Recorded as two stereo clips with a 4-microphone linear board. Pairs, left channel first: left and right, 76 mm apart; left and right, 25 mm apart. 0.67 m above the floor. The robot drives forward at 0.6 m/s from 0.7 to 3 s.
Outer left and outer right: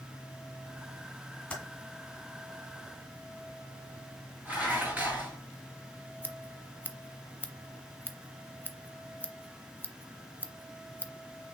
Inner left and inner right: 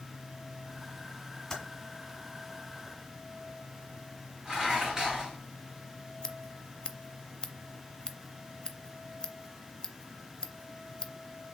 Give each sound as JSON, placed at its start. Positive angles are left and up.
{"t": 1.5, "sound": "typing on a keyboard", "side_deg": 15, "distance_m": 2.5}
{"t": 4.5, "sound": "dishes clattering", "side_deg": -20, "distance_m": 3.0}
{"t": 6.2, "sound": "scissors", "side_deg": 25, "distance_m": 0.6}